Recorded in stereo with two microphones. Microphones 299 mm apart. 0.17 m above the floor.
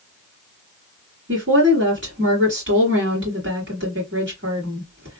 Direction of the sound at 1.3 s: 40° right (ahead or behind).